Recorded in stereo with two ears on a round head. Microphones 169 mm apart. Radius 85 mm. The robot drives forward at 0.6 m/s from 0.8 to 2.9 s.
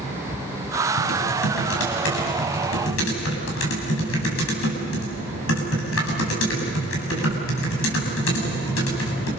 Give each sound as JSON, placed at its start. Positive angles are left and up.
{"t": 1.0, "sound": "typing on a keyboard", "side_deg": 80, "distance_m": 6.5}